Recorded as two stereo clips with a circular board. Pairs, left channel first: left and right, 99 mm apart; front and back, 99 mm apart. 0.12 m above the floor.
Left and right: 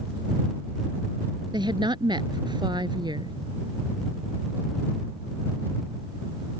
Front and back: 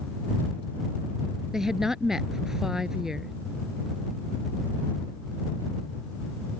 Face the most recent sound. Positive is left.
turn(degrees=-95)